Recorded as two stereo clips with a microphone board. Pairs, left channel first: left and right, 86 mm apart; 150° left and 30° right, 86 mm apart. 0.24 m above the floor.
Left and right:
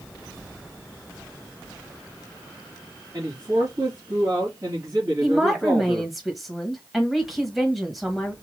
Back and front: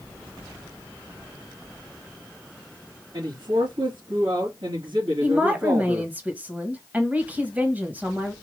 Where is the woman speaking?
5° right, 1.3 m.